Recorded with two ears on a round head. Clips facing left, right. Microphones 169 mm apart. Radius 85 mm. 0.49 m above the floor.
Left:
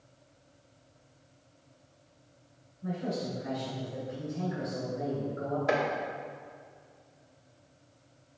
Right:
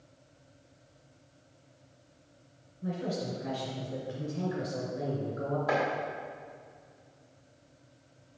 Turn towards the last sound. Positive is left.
turn(degrees=30)  # may be behind; listen again after turning